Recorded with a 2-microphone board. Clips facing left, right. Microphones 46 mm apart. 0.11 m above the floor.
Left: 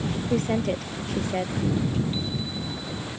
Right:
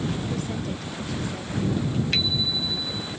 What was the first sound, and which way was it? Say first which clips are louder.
A woman speaking: left 6 dB; 45° left (ahead or behind).